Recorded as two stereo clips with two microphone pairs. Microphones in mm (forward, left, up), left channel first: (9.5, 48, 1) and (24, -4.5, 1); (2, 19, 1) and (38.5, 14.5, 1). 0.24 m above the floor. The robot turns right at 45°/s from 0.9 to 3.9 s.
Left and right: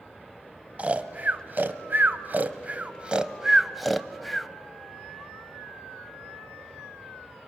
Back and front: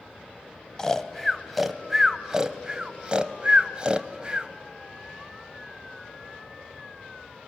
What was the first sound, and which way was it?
Snoring, 115° right.